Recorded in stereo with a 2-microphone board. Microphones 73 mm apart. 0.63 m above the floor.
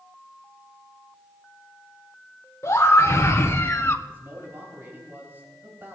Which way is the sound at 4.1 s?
35° right (ahead or behind).